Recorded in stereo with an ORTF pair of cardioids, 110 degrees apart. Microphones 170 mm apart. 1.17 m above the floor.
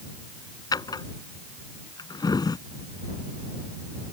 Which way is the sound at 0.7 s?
25° left.